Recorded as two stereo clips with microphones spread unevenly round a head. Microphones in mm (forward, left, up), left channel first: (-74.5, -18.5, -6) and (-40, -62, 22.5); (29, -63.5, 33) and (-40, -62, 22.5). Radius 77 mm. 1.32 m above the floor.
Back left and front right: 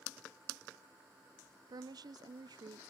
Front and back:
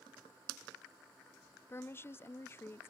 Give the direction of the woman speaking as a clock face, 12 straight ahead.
2 o'clock.